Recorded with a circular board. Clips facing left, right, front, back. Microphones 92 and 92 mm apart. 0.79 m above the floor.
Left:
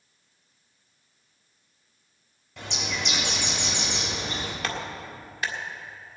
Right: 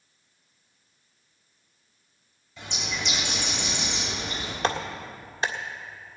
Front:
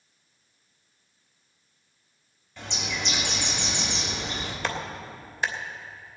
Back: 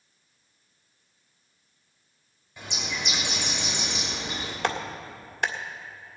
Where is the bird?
105° left, 4 m.